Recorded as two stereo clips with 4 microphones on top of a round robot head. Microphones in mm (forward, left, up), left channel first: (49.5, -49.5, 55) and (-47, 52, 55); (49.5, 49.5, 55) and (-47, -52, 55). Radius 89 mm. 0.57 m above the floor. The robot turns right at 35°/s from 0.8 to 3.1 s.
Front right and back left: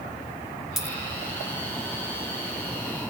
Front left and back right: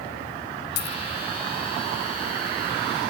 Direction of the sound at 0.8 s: 45° left.